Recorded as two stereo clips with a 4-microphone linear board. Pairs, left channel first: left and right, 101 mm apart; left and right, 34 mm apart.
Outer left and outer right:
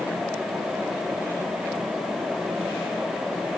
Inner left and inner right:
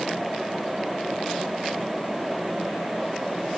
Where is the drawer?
I don't hear a drawer.